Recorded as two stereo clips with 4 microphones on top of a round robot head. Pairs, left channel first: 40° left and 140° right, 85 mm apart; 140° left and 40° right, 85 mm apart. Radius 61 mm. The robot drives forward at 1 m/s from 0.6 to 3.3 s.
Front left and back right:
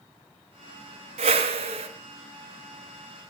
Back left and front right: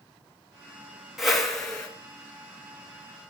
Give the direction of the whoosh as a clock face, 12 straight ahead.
4 o'clock.